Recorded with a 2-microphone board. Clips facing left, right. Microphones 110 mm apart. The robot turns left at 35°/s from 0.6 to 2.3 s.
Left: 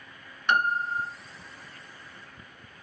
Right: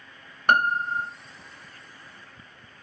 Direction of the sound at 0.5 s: 50° right (ahead or behind).